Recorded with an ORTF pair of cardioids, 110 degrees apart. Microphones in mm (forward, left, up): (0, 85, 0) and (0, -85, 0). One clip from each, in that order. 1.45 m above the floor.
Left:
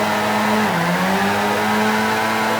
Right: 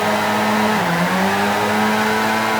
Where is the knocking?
No knocking in this recording.